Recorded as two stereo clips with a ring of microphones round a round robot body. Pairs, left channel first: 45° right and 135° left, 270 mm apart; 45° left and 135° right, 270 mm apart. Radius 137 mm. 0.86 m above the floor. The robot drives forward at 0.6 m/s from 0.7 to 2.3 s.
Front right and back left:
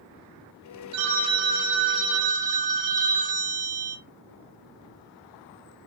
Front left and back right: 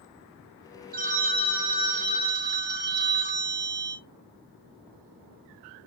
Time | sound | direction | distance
0.9 | a phone ringing | 165° left | 1.3 m